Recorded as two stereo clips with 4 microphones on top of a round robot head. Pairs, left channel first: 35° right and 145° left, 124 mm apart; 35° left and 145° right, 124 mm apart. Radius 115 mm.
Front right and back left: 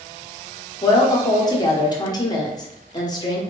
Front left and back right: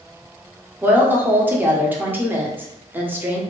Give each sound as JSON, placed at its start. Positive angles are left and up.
{"t": 0.8, "sound": "a woman speaking", "azimuth_deg": -75, "distance_m": 1.0}